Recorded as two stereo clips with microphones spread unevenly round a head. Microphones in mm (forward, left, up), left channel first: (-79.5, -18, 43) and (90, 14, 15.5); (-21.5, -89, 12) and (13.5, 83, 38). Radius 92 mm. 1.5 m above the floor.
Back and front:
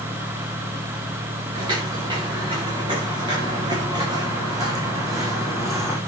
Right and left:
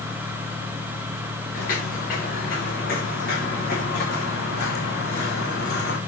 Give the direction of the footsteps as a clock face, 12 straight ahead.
2 o'clock.